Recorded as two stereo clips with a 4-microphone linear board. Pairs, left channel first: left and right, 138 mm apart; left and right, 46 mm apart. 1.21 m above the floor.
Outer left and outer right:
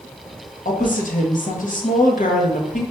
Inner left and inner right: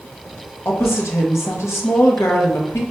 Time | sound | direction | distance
0.7 | a woman speaking | 75° left (ahead or behind) | 1.1 m